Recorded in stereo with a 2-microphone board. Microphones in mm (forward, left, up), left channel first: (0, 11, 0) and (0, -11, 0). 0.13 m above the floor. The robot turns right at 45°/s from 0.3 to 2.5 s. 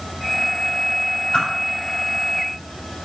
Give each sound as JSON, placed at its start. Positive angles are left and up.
{"t": 1.3, "sound": "a whoosh", "side_deg": 35, "distance_m": 5.0}